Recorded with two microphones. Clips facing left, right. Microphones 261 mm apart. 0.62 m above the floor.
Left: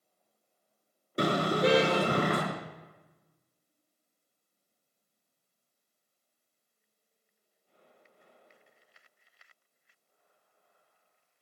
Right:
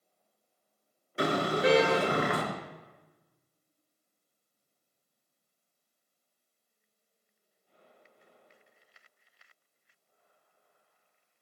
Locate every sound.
1.2 s a car horn: 40° left (ahead or behind), 5 m